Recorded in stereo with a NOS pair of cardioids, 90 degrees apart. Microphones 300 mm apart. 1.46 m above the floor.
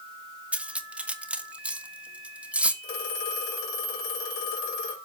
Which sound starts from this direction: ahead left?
A phone ringing, at 2.8 s.